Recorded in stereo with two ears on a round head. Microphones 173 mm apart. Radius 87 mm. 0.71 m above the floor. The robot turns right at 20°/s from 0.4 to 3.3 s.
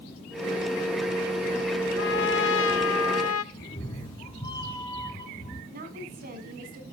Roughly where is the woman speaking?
Right.